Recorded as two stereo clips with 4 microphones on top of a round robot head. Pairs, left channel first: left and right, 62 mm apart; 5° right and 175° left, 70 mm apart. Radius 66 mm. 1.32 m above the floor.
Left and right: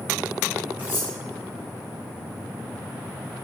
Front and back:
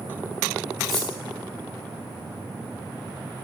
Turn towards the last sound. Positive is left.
turn(degrees=-30)